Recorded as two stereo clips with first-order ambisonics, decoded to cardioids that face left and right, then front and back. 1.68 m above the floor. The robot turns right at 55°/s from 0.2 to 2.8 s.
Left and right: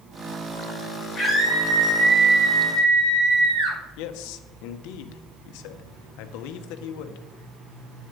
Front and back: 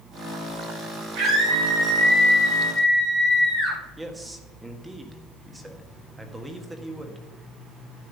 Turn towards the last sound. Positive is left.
turn(degrees=100)